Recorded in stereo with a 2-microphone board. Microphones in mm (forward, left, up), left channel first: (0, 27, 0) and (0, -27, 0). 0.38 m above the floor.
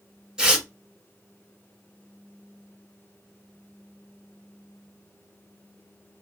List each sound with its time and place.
0.4 s tearing paper: 15° right (ahead or behind), 1.4 m